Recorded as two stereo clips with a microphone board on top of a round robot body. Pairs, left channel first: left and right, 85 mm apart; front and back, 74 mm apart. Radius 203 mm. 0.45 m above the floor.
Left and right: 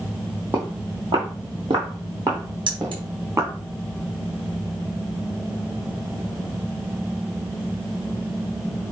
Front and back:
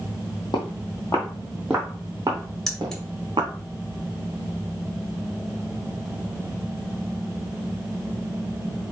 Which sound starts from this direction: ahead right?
Footsteps, at 0.5 s.